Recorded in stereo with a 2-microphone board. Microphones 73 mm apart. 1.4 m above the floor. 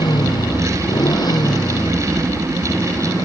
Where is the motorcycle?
85° left; by 3.3 s 65° left (ahead or behind).